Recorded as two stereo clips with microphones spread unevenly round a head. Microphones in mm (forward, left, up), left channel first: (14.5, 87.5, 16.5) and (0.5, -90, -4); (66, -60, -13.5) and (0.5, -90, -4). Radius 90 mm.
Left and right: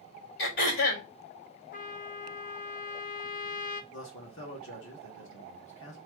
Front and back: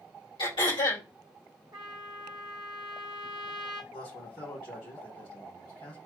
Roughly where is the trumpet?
Behind left.